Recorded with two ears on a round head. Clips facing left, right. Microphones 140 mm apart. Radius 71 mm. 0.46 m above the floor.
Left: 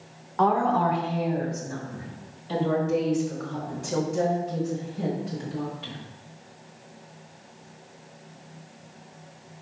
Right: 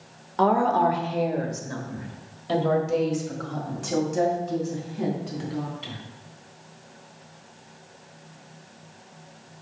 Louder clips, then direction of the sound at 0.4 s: Right 2 dB; 35° right (ahead or behind).